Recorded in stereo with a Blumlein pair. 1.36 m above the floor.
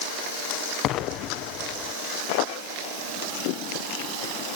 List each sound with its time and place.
0.8 s an explosion: 35° left, 0.8 m